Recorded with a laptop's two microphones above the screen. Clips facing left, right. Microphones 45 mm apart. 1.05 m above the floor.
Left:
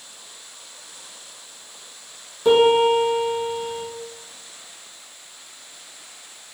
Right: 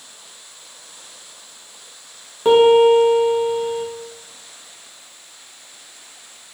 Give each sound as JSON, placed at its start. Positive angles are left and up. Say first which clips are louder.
{"t": 2.5, "sound": "a piano", "louder": "right 4 dB", "side_deg": -35, "distance_m": 0.8}